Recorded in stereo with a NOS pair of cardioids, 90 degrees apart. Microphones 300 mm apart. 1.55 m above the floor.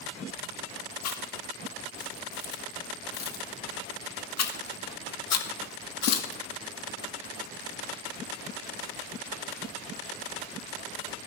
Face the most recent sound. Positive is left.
turn(degrees=60)